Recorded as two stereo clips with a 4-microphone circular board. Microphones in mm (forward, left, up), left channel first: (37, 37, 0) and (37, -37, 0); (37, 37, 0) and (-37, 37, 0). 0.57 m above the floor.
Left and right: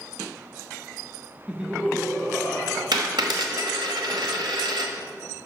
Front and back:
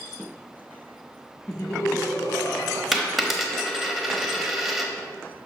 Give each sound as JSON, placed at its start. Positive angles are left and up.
{"t": 1.5, "sound": "laughter", "azimuth_deg": -15, "distance_m": 0.7}
{"t": 2.9, "sound": "a dropped coin", "azimuth_deg": -90, "distance_m": 1.0}